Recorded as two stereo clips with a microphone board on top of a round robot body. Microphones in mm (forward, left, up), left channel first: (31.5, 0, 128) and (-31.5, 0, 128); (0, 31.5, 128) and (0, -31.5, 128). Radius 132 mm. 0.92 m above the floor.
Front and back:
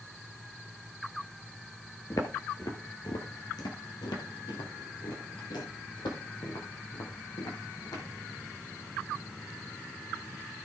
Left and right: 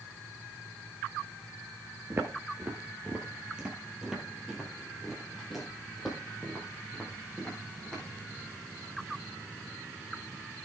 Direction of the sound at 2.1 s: 40° right.